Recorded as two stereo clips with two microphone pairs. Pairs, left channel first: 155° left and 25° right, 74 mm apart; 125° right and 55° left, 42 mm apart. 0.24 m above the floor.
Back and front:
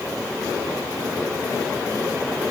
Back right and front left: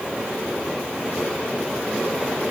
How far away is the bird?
I don't hear a bird.